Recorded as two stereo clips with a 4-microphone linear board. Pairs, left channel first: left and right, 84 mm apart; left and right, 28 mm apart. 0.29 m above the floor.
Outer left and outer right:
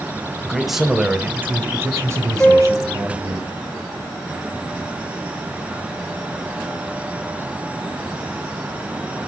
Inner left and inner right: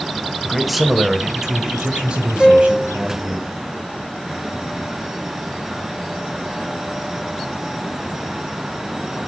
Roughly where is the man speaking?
Centre.